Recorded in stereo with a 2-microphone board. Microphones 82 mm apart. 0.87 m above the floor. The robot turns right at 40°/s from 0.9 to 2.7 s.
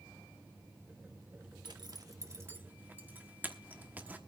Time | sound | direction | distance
1.6 | a zipper | 65° right (ahead or behind) | 1.1 m